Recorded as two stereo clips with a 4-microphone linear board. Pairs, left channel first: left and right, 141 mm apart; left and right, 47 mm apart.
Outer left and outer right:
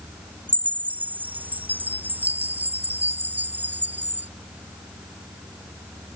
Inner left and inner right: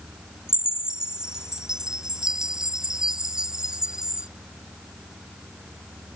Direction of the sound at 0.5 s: 10° right (ahead or behind).